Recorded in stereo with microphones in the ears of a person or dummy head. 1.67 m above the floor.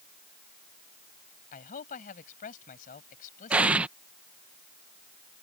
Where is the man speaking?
40° left (ahead or behind).